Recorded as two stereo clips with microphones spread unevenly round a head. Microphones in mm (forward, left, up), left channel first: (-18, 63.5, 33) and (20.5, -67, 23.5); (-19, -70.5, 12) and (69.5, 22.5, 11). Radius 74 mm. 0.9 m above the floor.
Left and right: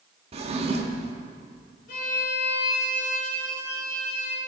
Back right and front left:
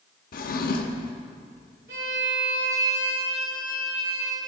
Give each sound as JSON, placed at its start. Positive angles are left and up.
{"t": 0.3, "sound": "a drawer", "azimuth_deg": -120, "distance_m": 0.9}
{"t": 1.9, "sound": "a violin", "azimuth_deg": 80, "distance_m": 2.5}